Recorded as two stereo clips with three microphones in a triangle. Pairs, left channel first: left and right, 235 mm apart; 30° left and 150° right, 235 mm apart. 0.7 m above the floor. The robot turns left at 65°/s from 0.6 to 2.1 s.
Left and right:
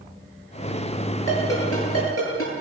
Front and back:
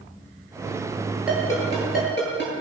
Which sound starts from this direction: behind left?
A ringtone, at 1.3 s.